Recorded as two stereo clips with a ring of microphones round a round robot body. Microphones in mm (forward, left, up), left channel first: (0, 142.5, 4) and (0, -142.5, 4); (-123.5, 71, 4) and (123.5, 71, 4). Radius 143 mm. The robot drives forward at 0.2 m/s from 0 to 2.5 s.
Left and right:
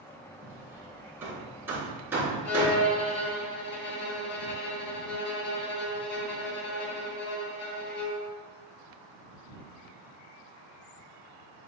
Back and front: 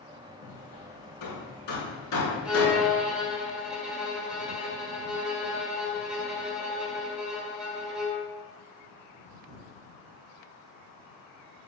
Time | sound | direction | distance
0.4 | hammering | 170° right | 3.5 m
2.5 | a violin | 85° left | 2 m